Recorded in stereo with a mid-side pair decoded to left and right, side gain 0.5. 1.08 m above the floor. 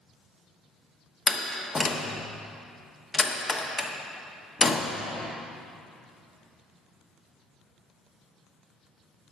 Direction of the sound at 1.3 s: 30° left.